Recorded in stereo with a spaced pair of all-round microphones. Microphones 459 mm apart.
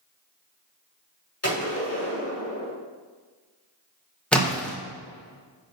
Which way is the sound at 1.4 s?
30° left (ahead or behind).